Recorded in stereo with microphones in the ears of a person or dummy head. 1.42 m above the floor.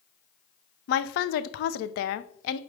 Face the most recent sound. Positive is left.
turn(degrees=70)  # may be behind; listen again after turning